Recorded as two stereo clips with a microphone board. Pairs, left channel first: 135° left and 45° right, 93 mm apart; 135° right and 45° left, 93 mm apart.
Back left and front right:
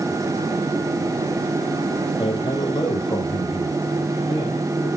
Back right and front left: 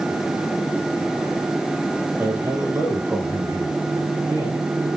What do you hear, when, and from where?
2.2 s a man speaking: 110° left, 3 m